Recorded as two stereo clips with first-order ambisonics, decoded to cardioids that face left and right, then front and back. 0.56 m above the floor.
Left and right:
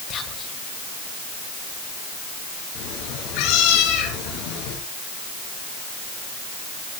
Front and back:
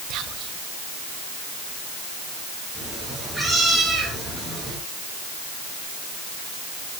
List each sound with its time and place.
0.1 s whispering: 140° left, 2.5 m
2.8 s a cat meowing: 90° left, 5 m